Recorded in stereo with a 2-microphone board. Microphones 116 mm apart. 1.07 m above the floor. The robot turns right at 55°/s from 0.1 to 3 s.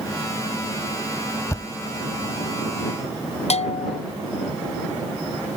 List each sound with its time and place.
1.5 s a thud: 25° left (ahead or behind)
3.5 s a bell: 70° left (ahead or behind)